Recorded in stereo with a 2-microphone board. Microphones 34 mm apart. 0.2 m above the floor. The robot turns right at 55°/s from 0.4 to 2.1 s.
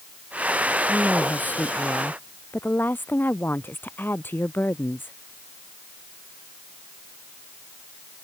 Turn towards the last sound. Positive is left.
turn(degrees=95)